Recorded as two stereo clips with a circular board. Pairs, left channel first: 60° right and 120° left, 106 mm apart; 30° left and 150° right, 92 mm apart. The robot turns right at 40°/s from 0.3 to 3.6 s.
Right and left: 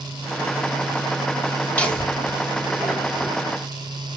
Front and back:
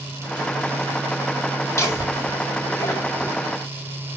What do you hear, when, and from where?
1.8 s laughter: 5° left, 1.8 m; by 3.3 s 65° left, 1.8 m